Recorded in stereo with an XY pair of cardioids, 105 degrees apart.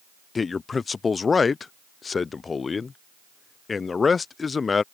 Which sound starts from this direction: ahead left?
A man speaking, at 0.3 s.